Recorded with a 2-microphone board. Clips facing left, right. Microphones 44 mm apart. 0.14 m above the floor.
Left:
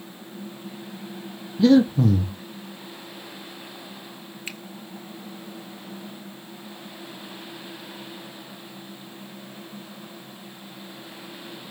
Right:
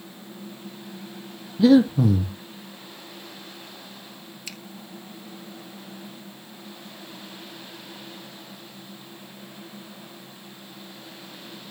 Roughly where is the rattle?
I don't hear a rattle.